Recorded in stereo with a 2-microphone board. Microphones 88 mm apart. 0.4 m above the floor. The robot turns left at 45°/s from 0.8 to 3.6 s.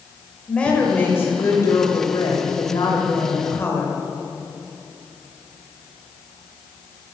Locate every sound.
0.5 s a woman speaking: 160° left, 1.7 m; by 4.0 s 35° left, 1.7 m